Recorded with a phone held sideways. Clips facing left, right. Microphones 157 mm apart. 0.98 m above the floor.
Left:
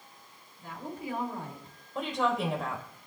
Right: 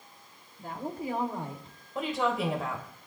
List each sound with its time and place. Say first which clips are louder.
0.6 s a woman speaking: right 4 dB; 50° right (ahead or behind), 2.5 m; by 1.8 s 20° right (ahead or behind), 2.5 m
1.9 s a woman speaking: even; centre (ahead or behind), 4 m